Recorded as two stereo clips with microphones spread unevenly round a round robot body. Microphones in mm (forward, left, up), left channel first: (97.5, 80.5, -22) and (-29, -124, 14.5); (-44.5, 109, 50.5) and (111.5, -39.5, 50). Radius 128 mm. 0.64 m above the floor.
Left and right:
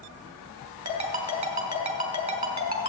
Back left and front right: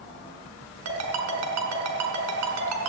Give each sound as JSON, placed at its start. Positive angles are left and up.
{"t": 0.8, "sound": "a ringtone", "azimuth_deg": -60, "distance_m": 3.0}